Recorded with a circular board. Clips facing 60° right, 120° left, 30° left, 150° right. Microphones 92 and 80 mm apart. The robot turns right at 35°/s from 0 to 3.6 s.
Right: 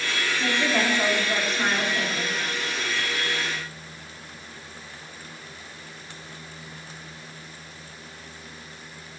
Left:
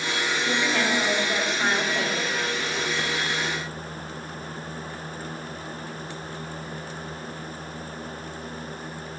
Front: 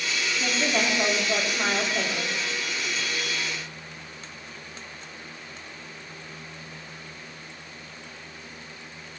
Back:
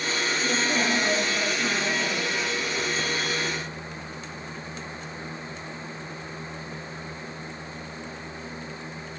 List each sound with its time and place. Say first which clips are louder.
0.4 s a woman speaking: right 2 dB, front 1 dB; 10° right, 3.5 m; by 2.4 s 60° left, 3.5 m